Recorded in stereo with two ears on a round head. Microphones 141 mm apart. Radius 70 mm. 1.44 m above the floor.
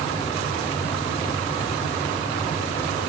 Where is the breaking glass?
I don't hear breaking glass.